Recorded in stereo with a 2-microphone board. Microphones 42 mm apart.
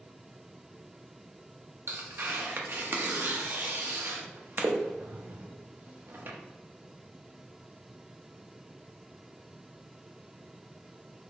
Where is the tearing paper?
55° right (ahead or behind), 0.7 m.